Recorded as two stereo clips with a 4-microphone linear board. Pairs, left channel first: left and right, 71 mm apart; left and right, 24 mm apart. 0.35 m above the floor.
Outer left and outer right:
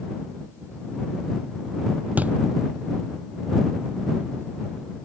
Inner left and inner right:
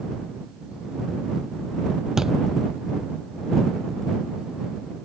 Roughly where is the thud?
Right.